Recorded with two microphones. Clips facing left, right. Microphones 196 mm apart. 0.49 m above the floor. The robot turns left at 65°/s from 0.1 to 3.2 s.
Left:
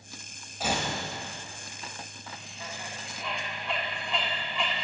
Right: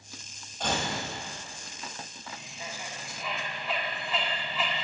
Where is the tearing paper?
5° left (ahead or behind), 1.5 m; by 0.9 s 20° left (ahead or behind), 1.5 m.